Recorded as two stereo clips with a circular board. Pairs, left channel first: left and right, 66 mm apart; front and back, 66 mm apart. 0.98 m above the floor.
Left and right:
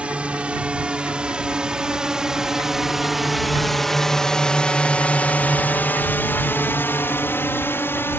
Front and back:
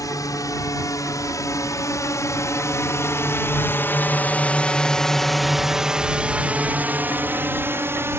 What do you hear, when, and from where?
0.0 s a drone: 20° right; by 8.2 s 135° left